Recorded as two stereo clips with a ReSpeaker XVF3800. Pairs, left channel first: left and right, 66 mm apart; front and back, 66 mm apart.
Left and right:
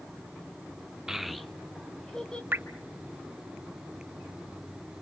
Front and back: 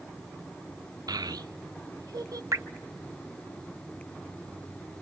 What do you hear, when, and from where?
1.1 s a child speaking: 170° right, 0.5 m; by 2.4 s 170° left, 1.6 m
2.5 s dripping: 145° right, 0.7 m